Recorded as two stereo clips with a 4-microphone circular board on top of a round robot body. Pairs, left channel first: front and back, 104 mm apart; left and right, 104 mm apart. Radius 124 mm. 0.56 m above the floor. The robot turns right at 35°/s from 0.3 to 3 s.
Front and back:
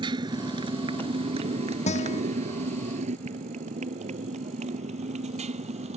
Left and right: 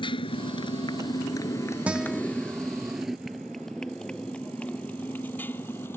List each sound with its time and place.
0.0 s a motorcycle: 135° left; by 6.0 s 160° left
1.9 s a guitar: 10° right; by 2.2 s straight ahead